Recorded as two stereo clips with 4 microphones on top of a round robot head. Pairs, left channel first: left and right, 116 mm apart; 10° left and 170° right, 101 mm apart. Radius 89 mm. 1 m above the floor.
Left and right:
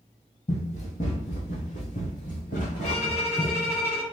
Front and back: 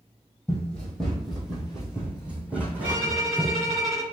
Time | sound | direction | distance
0.5 | running footsteps | 85° left | 1.6 m
2.8 | a violin | 140° left | 1.6 m